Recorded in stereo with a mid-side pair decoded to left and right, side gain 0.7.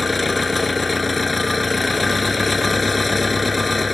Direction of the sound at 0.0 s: 15° left.